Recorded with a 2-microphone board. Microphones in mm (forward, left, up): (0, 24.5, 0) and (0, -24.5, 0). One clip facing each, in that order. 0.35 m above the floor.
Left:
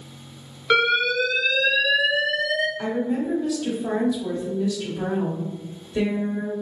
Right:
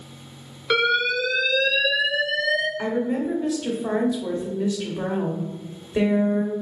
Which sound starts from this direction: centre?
An alarm, at 0.7 s.